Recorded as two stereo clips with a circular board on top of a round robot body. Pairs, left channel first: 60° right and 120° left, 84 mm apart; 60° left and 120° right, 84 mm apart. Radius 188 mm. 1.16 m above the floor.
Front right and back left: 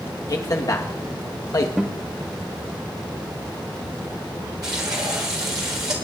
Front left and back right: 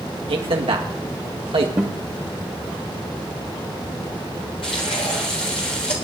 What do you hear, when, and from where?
0.3 s a man speaking: 110° right, 1.5 m
1.8 s a guitar: 160° right, 0.6 m
4.6 s frying: 75° left, 1.0 m